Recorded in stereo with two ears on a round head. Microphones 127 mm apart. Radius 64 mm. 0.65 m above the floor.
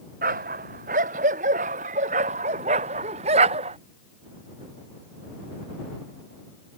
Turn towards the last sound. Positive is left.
turn(degrees=-40)  # may be behind; listen again after turning